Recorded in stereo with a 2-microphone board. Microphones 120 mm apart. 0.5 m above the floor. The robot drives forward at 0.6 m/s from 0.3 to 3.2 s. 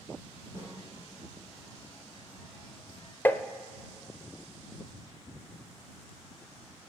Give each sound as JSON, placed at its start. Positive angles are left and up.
{"t": 0.6, "sound": "a snare drum", "side_deg": -20, "distance_m": 6.5}
{"t": 3.2, "sound": "tapping", "side_deg": 15, "distance_m": 0.7}